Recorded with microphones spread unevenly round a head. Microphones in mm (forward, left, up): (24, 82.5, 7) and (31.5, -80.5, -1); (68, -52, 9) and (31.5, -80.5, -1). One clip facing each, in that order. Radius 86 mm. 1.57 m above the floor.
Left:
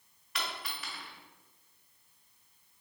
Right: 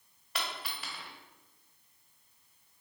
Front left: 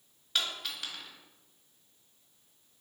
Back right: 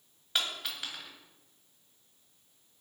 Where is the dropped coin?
50° right, 1.5 m.